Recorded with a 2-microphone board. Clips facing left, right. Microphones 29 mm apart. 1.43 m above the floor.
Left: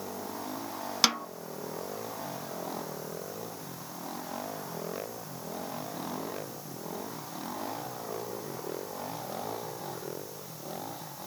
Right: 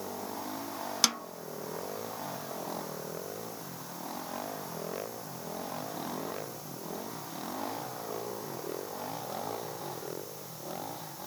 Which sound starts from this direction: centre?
A snare drum, at 1.0 s.